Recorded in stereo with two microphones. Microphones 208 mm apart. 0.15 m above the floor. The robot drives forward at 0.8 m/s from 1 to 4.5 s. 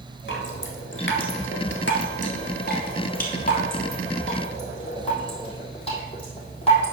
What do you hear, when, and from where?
0.3 s dripping: 65° left (ahead or behind), 1.5 m; by 6.9 s 30° left (ahead or behind), 3 m